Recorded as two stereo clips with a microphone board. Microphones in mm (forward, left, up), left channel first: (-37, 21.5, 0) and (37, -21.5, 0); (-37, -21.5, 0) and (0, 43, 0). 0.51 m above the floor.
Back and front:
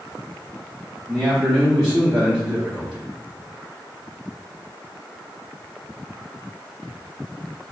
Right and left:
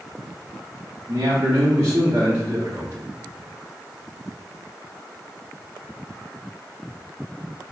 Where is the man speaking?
65° left, 0.8 m.